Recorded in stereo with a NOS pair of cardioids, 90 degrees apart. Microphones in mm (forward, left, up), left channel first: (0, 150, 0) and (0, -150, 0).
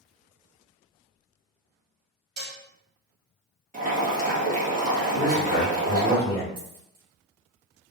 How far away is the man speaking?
About 1.9 m.